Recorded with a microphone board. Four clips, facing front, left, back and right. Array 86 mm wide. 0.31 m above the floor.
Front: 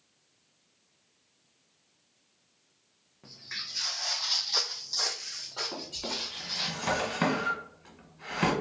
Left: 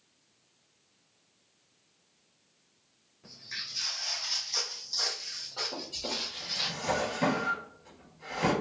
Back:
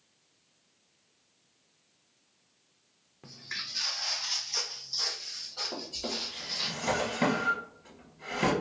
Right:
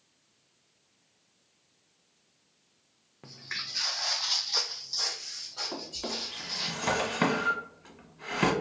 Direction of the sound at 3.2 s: 105° right.